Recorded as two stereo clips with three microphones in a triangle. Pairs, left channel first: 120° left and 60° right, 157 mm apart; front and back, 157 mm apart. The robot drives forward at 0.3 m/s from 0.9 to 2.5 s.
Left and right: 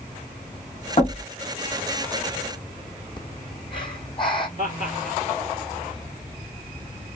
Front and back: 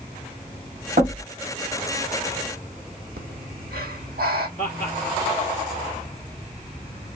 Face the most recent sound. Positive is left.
turn(degrees=145)